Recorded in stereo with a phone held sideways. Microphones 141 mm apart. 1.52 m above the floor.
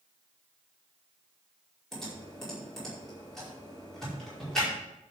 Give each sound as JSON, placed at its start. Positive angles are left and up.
{"t": 1.9, "sound": "typing on a keyboard", "side_deg": 5, "distance_m": 5.0}